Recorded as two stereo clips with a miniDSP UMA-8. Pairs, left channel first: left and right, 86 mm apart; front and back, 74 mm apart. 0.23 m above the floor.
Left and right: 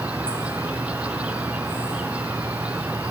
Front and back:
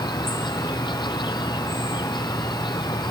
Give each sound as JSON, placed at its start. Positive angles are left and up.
{"t": 0.0, "sound": "an insect", "azimuth_deg": -15}